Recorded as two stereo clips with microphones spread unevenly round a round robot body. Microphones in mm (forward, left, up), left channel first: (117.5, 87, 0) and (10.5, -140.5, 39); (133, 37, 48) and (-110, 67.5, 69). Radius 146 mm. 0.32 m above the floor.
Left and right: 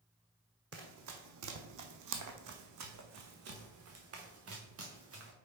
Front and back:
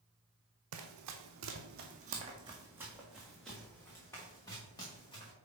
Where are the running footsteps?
165° right, 1.0 m; by 5.3 s 80° right, 2.5 m.